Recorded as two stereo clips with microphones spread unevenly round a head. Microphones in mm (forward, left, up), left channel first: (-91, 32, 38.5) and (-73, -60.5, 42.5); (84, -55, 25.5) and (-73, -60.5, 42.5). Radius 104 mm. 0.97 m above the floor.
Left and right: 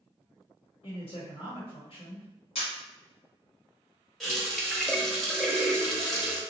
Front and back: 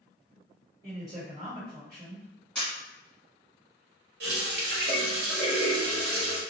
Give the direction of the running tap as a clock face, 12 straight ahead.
6 o'clock.